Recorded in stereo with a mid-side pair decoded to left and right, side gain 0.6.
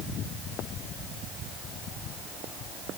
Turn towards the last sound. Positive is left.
No sound to turn to.